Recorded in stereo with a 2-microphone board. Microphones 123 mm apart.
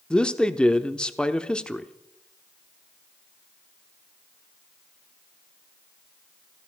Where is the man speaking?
5° left (ahead or behind), 0.8 m.